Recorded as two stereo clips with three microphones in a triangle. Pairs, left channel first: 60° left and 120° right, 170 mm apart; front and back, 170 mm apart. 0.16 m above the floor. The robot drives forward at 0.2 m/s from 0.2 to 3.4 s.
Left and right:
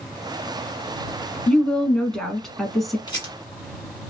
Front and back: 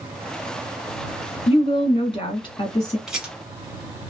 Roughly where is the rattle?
Left.